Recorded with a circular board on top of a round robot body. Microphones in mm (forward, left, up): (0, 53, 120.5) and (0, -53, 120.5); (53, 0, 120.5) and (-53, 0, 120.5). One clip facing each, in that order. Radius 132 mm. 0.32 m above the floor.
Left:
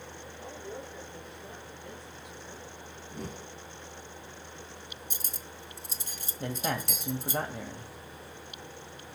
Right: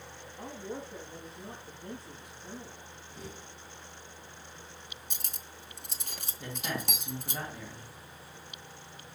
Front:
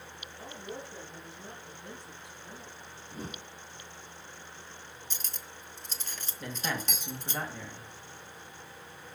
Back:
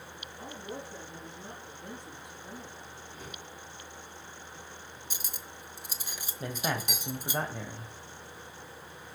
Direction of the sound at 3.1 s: 55° left.